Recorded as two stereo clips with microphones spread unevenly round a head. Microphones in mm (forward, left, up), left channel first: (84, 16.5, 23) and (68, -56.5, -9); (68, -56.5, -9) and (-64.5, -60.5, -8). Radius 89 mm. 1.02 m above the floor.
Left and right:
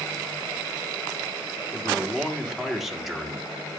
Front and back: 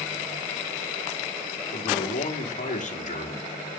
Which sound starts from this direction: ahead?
A man speaking, at 1.7 s.